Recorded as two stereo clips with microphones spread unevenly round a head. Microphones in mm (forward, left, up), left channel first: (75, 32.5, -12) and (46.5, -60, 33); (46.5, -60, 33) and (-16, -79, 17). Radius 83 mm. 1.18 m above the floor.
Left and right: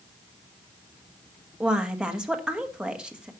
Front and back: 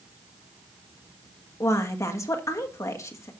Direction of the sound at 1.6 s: 25° right.